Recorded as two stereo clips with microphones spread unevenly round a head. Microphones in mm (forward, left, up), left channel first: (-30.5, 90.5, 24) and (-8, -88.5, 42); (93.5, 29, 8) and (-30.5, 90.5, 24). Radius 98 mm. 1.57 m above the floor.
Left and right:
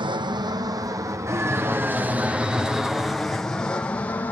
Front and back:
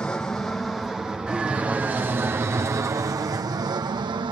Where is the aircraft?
80° right; by 4.3 s 155° left.